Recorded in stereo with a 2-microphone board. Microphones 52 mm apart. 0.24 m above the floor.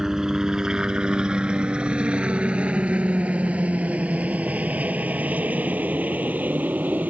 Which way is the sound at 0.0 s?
10° right (ahead or behind).